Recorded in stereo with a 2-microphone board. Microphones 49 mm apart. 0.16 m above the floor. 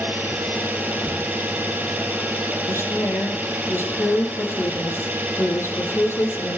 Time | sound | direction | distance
0.0 | an engine running | 35° right (ahead or behind) | 3 m
2.7 | a woman speaking | 60° left (ahead or behind) | 5.5 m